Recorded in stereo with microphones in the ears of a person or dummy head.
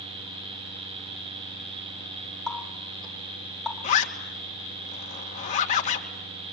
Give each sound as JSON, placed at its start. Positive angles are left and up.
{"t": 2.5, "sound": "a running tap", "side_deg": 5, "distance_m": 4.0}
{"t": 3.8, "sound": "a zipper", "side_deg": 40, "distance_m": 2.5}